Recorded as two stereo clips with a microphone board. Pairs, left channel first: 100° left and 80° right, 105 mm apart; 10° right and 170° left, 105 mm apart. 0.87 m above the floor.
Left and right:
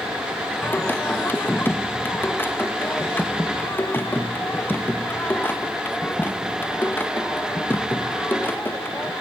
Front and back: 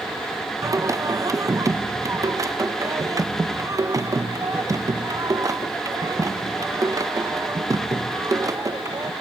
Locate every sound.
0.6 s singing: 145° left, 0.6 m